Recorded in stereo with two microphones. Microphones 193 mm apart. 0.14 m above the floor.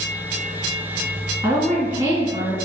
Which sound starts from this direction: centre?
A woman speaking, at 1.4 s.